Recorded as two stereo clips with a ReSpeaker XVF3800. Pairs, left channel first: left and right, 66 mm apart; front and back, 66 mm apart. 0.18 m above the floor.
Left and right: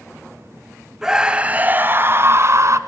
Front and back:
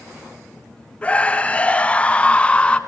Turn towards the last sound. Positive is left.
turn(degrees=-70)